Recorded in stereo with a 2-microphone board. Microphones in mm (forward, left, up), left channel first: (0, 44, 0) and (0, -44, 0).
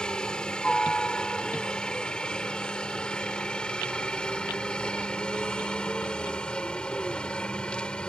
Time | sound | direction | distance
0.0 | a helicopter | 10° left (ahead or behind) | ?